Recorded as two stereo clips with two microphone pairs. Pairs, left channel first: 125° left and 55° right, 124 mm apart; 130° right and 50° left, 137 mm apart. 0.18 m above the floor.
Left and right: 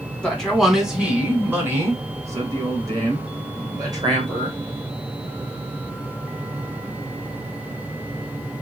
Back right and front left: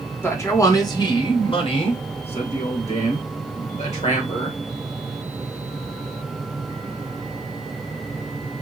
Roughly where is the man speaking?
Behind.